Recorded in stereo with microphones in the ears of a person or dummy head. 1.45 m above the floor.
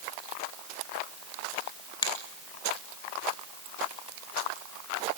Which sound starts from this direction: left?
A finger snap, at 2.0 s.